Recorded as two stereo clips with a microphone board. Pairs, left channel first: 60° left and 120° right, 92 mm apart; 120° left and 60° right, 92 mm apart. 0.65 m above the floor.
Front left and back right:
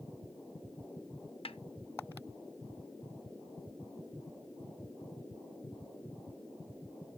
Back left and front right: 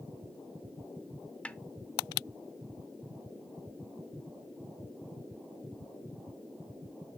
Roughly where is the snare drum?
Ahead left.